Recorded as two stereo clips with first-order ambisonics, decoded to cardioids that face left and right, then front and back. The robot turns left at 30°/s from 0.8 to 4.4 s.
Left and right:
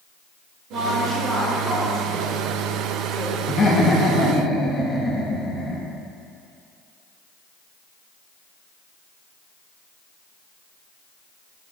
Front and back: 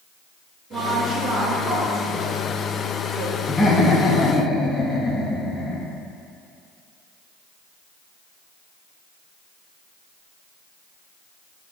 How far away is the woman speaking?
About 2.5 m.